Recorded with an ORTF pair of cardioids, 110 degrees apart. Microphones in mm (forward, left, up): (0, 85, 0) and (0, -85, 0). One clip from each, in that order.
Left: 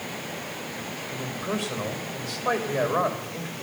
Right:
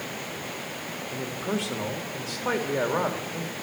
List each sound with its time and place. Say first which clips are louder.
1.1 s a man speaking: even; 20° right, 4 m